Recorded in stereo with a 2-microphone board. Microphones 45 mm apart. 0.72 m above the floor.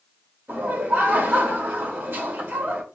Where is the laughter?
60° right (ahead or behind), 2.0 m.